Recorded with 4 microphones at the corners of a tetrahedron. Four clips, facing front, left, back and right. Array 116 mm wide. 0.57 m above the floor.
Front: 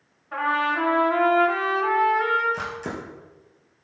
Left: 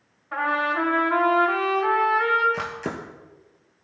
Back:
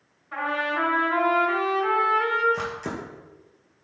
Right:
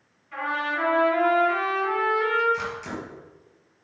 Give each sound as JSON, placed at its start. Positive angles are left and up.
{"t": 0.3, "sound": "a trumpet", "azimuth_deg": 70, "distance_m": 5.0}
{"t": 2.5, "sound": "a camera shutter", "azimuth_deg": 85, "distance_m": 2.5}